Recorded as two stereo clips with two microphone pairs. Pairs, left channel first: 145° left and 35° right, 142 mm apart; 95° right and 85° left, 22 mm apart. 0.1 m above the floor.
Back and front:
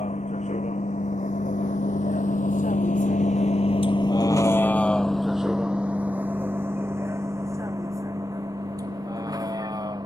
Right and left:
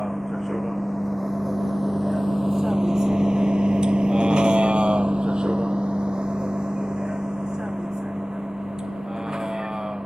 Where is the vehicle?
Straight behind; by 10.1 s 30° left.